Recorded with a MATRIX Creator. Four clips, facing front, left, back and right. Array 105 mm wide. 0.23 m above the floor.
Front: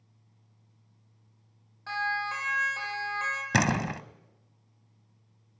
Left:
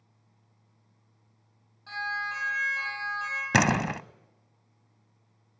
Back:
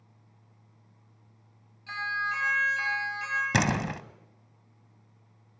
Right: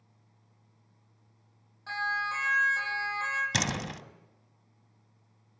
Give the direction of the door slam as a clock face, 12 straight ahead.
9 o'clock.